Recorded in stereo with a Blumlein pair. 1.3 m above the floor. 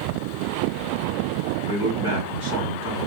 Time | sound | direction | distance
1.6 | a man speaking | 65° right | 3.5 m